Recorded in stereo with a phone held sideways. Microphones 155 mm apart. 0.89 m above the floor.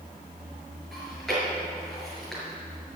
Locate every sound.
0.9 s chewing: centre (ahead or behind), 4.5 m